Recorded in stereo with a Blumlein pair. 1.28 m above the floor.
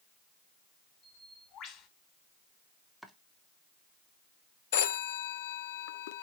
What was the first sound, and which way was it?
A bird, 30° left.